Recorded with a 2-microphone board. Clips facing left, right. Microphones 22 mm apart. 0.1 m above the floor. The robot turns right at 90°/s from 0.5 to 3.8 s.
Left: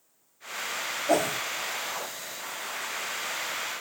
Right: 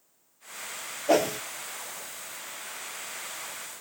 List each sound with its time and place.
1.1 s a whoosh: 35° right (ahead or behind), 0.6 m; by 1.4 s 55° right (ahead or behind), 0.6 m